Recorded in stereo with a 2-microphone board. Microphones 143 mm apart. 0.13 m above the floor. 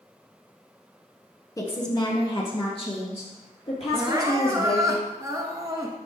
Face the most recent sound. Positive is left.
turn(degrees=-25)  # may be behind; listen again after turning